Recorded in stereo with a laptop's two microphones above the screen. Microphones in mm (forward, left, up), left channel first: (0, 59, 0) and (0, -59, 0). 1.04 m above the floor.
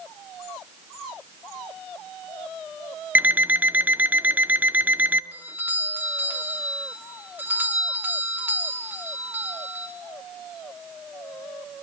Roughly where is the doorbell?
Centre.